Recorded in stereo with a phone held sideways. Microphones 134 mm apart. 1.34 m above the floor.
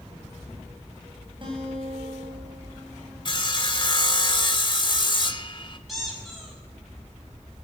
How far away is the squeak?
About 7.5 m.